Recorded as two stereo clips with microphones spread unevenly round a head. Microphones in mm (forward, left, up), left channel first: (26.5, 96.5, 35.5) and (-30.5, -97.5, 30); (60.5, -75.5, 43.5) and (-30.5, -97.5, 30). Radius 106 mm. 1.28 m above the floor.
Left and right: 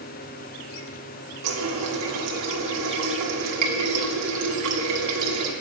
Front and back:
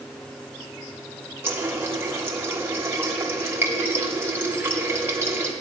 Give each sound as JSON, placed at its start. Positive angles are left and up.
{"t": 1.4, "sound": "a running tap", "azimuth_deg": -100, "distance_m": 1.5}